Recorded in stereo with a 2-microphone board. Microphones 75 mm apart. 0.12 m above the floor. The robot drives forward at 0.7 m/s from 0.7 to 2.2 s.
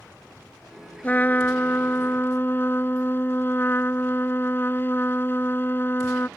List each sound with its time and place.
1.0 s a trumpet: 25° left (ahead or behind); by 6.3 s 30° left (ahead or behind)